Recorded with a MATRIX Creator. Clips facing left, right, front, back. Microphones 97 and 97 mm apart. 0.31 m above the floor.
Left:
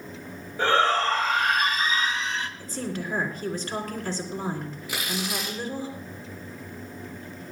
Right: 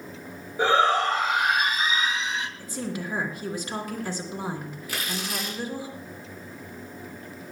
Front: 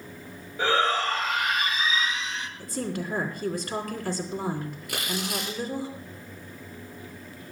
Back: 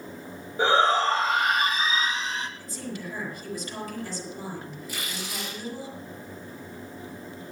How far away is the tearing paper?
About 7.5 m.